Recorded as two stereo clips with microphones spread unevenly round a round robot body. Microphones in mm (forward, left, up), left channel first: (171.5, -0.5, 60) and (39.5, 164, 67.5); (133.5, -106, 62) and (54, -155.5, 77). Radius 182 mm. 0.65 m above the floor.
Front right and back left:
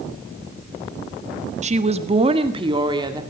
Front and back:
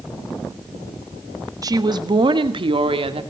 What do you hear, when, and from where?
1.6 s a woman speaking: 170° left, 1.4 m; by 3.2 s 160° right, 2 m